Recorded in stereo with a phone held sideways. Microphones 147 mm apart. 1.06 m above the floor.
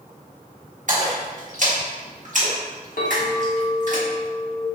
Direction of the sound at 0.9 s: 60° right (ahead or behind).